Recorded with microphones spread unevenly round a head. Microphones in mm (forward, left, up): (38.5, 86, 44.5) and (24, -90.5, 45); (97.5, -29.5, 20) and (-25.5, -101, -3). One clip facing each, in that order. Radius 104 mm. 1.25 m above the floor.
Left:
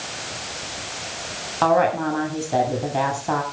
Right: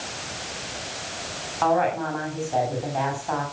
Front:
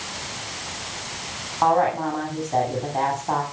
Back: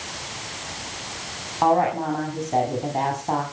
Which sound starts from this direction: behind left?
A woman speaking, at 1.6 s.